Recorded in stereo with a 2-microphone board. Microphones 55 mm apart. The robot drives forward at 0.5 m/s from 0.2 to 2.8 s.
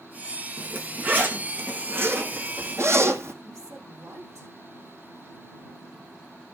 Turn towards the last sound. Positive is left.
turn(degrees=-65)  # may be behind; listen again after turning